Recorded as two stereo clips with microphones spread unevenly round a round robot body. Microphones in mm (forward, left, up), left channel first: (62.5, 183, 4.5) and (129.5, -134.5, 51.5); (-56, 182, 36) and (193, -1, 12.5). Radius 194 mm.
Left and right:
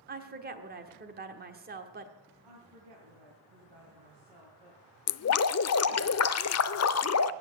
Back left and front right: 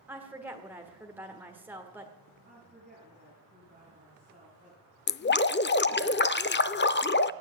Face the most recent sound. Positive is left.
turn(degrees=90)